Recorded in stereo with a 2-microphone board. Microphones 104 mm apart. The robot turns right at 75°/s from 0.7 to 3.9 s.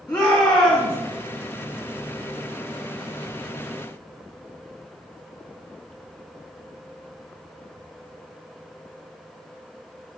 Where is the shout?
20° left (ahead or behind), 1.2 m.